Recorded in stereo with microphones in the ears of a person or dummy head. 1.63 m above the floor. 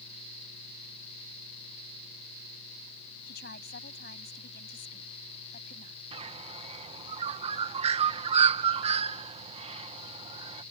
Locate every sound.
3.3 s a woman speaking: 60° left (ahead or behind); by 6.0 s 50° left (ahead or behind)
6.1 s a bird: 30° right (ahead or behind)